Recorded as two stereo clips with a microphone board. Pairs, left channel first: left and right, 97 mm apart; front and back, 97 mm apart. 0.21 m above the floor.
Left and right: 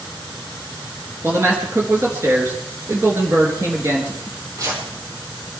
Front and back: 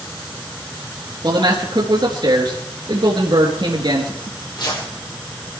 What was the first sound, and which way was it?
A man speaking, 150° right.